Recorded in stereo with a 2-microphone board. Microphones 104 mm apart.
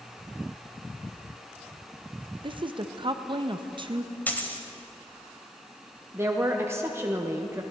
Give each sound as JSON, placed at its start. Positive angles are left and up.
{"t": 2.4, "sound": "a woman speaking", "side_deg": -45, "distance_m": 0.5}
{"t": 4.3, "sound": "a dropped coin", "side_deg": 15, "distance_m": 1.0}
{"t": 6.1, "sound": "a woman speaking", "side_deg": -20, "distance_m": 0.7}